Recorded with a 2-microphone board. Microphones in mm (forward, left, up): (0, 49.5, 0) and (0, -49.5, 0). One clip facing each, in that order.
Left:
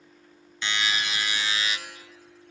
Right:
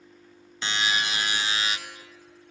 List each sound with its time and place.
0.6 s a buzzer: 35° right (ahead or behind), 0.6 m